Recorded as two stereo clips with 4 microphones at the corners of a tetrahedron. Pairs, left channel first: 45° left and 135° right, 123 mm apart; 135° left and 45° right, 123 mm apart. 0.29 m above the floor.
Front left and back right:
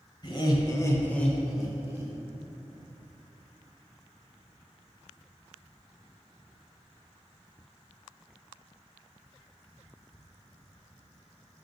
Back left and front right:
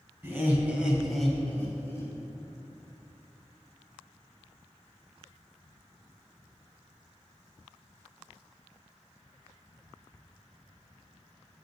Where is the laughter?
20° left, 1.6 m; by 2.1 s straight behind, 1.4 m.